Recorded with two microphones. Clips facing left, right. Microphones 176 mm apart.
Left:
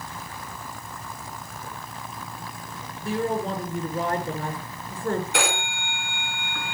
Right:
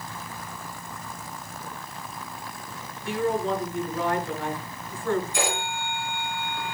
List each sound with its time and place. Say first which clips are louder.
3.0 s a woman speaking: even; 40° left (ahead or behind), 6.5 m
5.3 s a phone ringing: left 1 dB; 80° left, 4 m